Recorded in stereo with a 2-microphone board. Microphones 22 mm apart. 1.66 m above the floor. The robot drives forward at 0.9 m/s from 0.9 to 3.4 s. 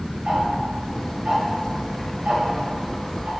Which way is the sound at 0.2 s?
55° right (ahead or behind).